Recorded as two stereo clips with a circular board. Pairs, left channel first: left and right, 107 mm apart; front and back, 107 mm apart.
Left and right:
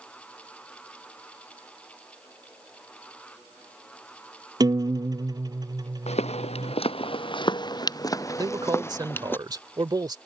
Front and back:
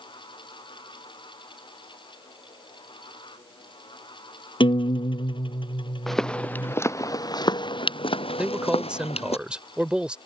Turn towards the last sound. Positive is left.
turn(degrees=-105)